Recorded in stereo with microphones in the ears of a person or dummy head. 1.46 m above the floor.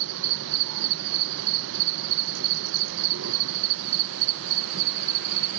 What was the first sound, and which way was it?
An insect, 70° right (ahead or behind).